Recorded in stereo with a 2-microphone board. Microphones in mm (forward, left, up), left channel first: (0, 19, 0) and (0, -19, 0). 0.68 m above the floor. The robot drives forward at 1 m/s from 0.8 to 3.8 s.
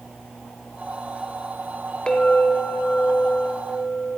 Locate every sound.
2.1 s a clink: 20° left (ahead or behind), 1.2 m; by 4.2 s 40° left (ahead or behind), 0.8 m